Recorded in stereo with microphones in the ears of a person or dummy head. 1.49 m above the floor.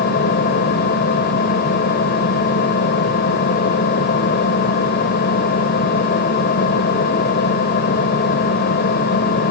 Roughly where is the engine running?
Left.